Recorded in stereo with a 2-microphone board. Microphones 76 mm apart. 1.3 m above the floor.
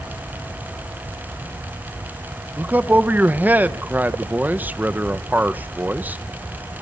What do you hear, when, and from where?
2.6 s a man speaking: 25° right (ahead or behind), 1.4 m